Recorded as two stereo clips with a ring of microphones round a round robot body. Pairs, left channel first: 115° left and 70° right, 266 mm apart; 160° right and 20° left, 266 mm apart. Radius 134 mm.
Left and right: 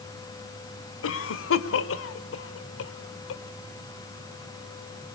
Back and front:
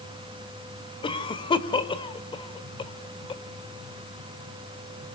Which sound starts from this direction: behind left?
A cough, at 1.0 s.